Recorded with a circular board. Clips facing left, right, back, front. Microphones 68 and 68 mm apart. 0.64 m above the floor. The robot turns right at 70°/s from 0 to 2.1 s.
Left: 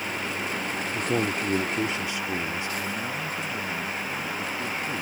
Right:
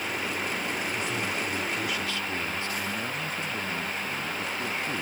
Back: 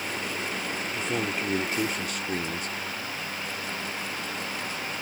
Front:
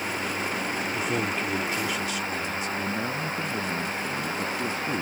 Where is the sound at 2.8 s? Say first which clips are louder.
Left 1 dB, front 6 dB; 5° right.